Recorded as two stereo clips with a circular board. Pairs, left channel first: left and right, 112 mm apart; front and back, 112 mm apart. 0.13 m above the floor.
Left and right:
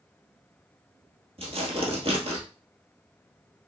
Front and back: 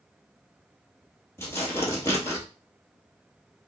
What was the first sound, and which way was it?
Tearing paper, 65° right.